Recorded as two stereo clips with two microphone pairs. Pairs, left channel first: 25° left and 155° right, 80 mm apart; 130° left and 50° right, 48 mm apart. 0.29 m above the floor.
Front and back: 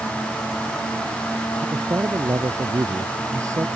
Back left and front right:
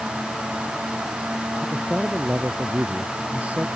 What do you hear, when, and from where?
1.6 s a man speaking: 105° right